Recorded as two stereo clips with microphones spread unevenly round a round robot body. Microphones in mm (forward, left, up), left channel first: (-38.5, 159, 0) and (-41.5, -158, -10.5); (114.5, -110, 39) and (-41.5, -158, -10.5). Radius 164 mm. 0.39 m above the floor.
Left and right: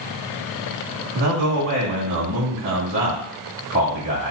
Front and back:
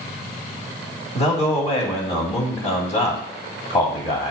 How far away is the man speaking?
About 1.8 m.